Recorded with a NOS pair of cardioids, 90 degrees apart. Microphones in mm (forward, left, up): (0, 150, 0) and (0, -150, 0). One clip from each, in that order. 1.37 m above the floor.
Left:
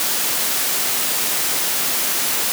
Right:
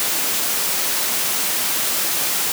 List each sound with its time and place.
Only background noise.